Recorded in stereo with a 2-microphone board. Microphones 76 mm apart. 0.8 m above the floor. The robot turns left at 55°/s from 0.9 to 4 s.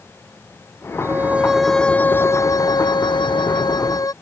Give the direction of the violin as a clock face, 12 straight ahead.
5 o'clock.